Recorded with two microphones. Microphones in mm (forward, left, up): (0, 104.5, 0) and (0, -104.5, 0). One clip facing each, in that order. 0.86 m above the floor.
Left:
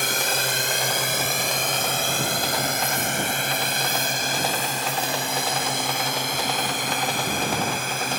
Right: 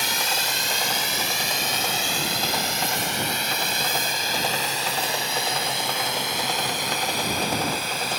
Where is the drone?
55° left (ahead or behind); by 8.2 s 50° left (ahead or behind).